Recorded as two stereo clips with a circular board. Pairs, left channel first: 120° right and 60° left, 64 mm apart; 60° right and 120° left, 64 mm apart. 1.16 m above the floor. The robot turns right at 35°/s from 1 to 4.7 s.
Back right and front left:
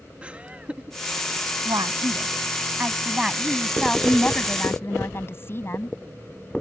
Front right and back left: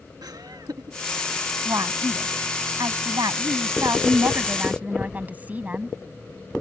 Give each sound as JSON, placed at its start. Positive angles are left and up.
{"t": 0.2, "sound": "laughter", "azimuth_deg": 130}
{"t": 1.6, "sound": "a woman speaking", "azimuth_deg": 80}